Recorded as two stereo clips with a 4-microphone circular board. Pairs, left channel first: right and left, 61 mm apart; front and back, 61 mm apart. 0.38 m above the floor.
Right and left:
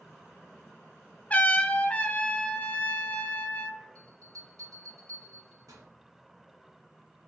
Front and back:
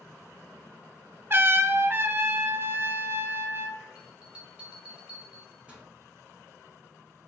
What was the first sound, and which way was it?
A trumpet, 145° right.